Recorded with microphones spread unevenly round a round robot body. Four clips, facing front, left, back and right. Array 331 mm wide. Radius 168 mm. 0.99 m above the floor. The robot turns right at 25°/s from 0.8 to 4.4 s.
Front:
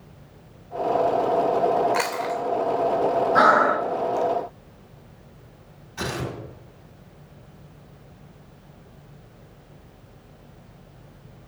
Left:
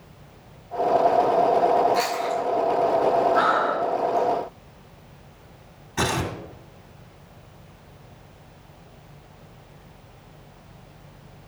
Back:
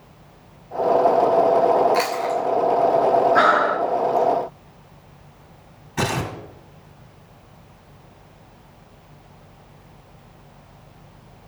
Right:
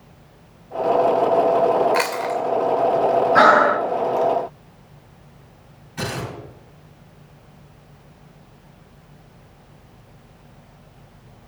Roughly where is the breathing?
Right.